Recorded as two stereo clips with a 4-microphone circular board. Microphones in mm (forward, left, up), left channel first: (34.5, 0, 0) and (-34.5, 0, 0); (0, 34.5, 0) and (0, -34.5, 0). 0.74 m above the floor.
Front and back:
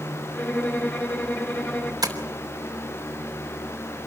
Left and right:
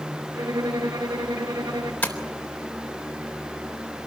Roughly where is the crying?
I don't hear crying.